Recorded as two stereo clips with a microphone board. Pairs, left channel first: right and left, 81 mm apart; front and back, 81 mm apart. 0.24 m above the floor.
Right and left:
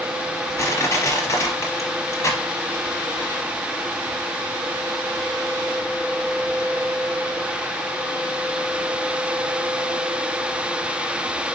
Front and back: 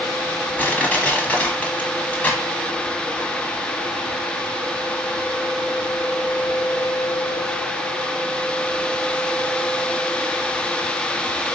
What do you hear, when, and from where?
0.6 s crushing: 65° right, 1.1 m